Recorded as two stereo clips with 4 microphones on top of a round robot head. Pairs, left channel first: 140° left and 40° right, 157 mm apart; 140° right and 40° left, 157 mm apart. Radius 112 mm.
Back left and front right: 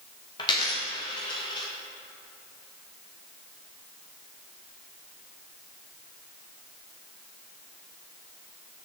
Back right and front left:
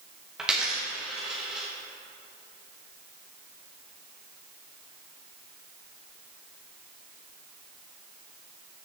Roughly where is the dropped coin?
Behind left.